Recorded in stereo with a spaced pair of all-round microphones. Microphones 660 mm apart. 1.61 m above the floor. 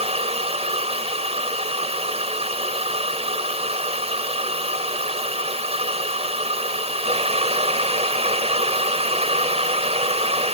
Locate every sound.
0.0 s a fan: 10° right (ahead or behind)